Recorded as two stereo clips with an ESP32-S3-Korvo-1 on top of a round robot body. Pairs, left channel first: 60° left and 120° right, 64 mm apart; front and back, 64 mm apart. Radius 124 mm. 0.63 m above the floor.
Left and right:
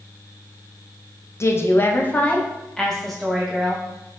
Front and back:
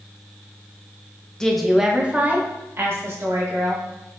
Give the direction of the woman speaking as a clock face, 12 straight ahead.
9 o'clock.